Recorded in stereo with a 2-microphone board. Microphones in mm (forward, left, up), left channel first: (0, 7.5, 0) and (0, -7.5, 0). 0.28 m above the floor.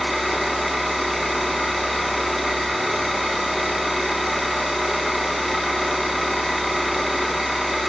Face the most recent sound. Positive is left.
turn(degrees=-10)  # may be behind; listen again after turning